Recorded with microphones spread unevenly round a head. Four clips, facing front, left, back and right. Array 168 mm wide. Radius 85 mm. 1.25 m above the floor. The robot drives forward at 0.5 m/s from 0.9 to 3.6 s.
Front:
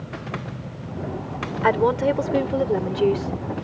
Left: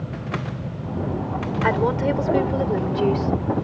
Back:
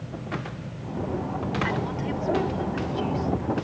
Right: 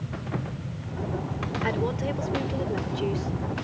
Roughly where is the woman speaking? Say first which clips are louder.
Left 8 dB, front 10 dB; ahead left.